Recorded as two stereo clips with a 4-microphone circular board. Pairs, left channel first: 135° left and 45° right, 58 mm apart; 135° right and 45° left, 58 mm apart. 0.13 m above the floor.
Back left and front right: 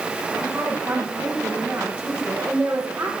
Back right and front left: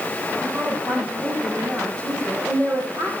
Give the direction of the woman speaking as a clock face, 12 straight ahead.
11 o'clock.